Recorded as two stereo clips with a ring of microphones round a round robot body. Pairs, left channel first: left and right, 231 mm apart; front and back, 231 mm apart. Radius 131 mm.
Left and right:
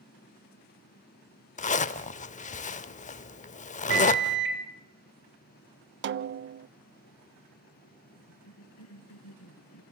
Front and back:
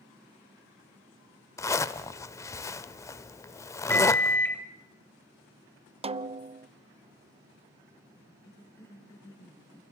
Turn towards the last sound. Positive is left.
turn(degrees=80)